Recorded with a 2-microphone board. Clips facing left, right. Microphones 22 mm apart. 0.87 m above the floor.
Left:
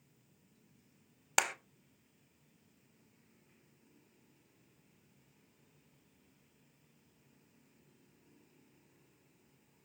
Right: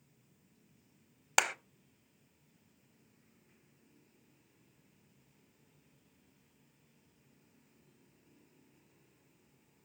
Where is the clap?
10° right (ahead or behind), 0.7 m.